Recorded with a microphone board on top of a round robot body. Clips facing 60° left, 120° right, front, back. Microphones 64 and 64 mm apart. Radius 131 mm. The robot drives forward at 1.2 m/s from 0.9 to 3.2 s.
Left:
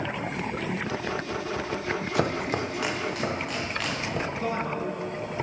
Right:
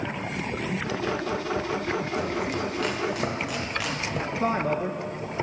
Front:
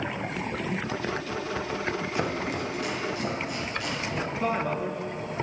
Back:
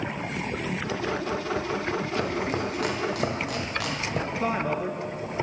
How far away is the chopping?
About 0.5 m.